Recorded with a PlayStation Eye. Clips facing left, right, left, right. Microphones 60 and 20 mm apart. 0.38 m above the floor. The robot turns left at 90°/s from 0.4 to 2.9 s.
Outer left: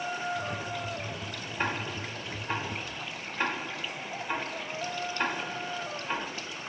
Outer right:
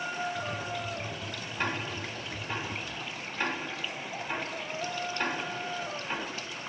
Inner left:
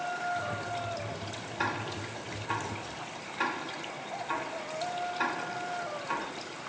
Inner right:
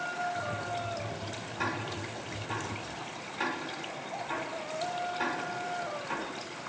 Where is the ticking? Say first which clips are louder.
Outer left 1 dB, inner left 1 dB; 10° left (ahead or behind), 0.9 m; by 6.3 s 20° left (ahead or behind), 0.9 m.